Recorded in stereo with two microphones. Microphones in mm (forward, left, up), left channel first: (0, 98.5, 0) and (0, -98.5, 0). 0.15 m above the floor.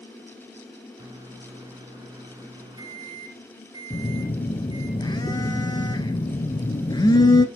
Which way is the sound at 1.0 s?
20° right (ahead or behind).